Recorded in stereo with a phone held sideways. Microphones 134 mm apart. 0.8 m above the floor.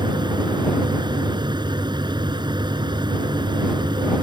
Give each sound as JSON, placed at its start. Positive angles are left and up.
{"t": 0.0, "sound": "a fan", "side_deg": -35}